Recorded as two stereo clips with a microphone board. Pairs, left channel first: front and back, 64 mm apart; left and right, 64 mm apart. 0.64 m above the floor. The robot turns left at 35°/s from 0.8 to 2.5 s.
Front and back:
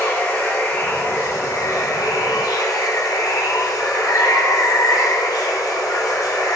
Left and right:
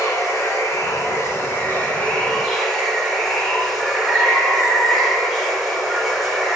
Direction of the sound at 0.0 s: 60° left.